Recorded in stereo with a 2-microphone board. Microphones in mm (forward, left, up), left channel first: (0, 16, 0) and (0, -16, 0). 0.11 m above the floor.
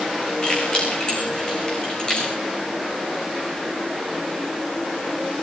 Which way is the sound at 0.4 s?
30° left (ahead or behind).